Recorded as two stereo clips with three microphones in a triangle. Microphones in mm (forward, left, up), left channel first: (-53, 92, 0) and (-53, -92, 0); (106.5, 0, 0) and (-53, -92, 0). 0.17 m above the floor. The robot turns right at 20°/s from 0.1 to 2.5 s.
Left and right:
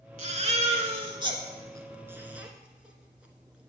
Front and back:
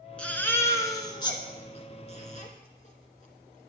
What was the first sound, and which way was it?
A baby crying, 55° right.